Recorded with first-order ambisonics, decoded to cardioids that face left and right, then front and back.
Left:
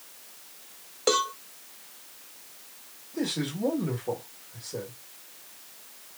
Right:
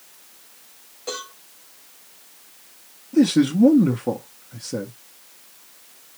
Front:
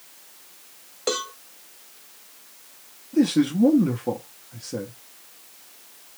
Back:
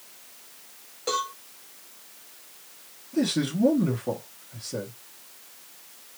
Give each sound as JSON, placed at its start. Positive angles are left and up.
{"t": 1.1, "sound": "a cowbell", "azimuth_deg": 55, "distance_m": 0.8}
{"t": 3.1, "sound": "a man speaking", "azimuth_deg": -75, "distance_m": 0.9}